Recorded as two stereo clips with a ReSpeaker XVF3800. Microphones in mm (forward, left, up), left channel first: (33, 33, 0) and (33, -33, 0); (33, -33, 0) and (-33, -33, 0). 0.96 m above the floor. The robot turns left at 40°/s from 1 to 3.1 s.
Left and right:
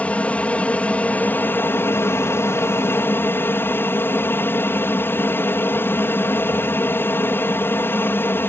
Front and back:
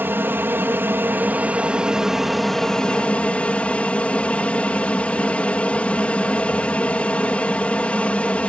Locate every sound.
0.0 s an aircraft: 145° left; by 8.5 s 60° left